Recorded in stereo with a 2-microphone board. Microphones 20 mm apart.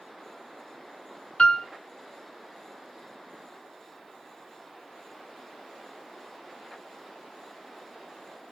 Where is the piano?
85° left, 0.7 m.